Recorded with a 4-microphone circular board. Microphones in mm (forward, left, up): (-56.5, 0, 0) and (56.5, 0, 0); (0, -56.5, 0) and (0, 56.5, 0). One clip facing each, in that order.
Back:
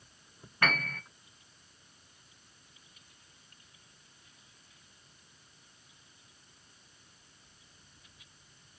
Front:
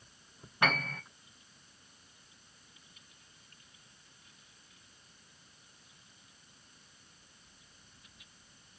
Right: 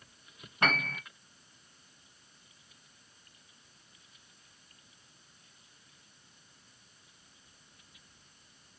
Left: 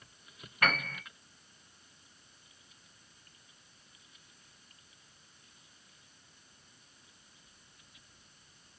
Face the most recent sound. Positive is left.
turn(degrees=-50)